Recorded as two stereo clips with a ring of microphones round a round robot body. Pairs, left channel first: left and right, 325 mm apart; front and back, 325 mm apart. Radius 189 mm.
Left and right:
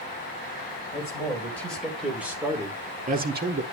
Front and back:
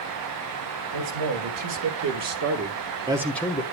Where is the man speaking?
170° left, 3 m; by 3.6 s 60° right, 1.4 m.